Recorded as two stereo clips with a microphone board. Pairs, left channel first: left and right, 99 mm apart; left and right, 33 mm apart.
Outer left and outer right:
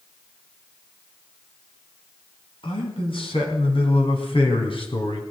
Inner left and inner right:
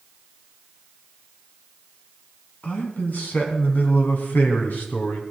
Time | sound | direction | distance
2.6 | a man speaking | 65° left (ahead or behind) | 3.5 m